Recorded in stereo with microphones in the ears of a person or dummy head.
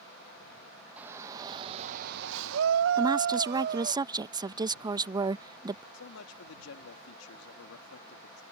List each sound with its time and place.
1.0 s a shout: 10° right (ahead or behind); by 4.0 s 55° right (ahead or behind)
3.0 s a woman speaking: 25° right (ahead or behind)
5.9 s a man speaking: 80° left